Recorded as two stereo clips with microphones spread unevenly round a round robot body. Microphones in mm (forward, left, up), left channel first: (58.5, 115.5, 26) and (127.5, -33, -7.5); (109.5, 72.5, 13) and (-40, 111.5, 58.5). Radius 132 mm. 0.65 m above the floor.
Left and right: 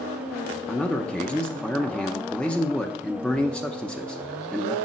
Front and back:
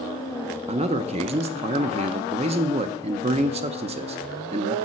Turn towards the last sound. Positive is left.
turn(degrees=-145)